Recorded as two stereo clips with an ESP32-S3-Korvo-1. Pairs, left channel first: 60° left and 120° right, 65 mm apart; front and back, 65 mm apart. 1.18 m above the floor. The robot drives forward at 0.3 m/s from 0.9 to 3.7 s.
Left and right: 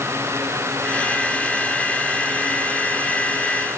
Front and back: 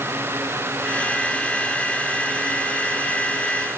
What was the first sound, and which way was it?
Only background noise.